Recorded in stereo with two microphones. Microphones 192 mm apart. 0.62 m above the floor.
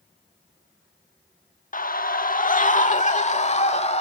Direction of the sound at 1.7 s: 45° left (ahead or behind).